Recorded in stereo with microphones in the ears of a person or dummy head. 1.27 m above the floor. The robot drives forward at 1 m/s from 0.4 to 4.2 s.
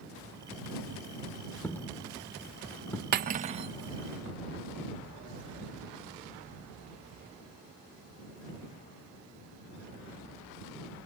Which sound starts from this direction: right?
Cutlery clinking, at 3.1 s.